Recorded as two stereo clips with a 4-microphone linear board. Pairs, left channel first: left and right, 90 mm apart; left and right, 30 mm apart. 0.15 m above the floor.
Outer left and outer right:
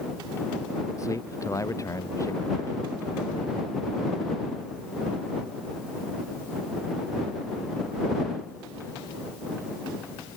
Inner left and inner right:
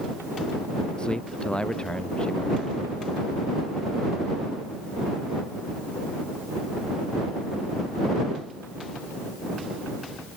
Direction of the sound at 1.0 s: 35° left (ahead or behind).